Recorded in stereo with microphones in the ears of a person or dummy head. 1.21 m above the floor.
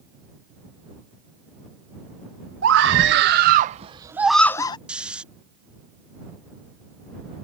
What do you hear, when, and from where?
2.6 s a scream: 75° right (ahead or behind); by 4.8 s 25° left (ahead or behind)
4.9 s snoring: 5° right (ahead or behind)